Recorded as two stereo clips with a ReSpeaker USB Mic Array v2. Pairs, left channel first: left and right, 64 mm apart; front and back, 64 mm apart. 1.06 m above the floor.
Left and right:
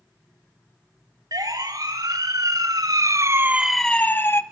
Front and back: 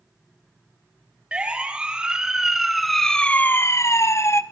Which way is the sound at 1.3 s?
105° right.